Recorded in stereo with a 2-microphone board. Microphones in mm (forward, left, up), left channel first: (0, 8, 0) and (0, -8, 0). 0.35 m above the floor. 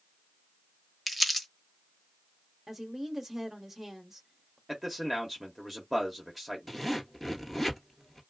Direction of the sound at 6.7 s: Centre (ahead or behind).